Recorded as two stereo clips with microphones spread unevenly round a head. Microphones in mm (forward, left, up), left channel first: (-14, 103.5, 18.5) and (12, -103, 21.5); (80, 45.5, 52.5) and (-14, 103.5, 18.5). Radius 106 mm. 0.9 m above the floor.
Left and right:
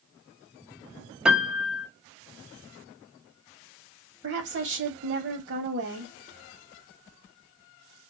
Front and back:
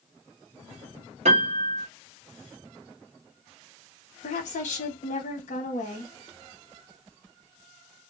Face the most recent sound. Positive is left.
turn(degrees=-60)